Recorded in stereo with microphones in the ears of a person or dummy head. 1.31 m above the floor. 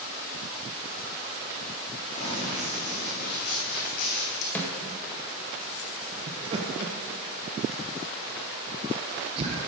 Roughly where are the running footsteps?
Left.